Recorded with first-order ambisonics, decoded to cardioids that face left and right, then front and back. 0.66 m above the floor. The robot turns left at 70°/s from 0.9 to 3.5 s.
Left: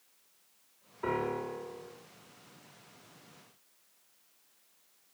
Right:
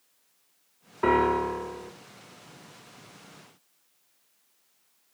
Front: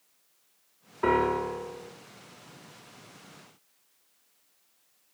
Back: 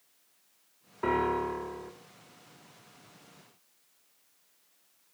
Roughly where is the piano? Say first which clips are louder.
Right 11 dB, front 3 dB; right.